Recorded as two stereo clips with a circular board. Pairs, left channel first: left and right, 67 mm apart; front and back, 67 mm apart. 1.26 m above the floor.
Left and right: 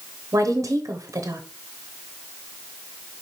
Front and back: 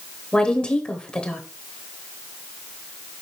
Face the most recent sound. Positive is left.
turn(degrees=-70)